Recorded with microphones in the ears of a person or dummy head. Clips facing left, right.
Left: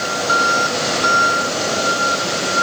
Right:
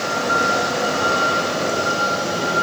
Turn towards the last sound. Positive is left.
No sound to turn to.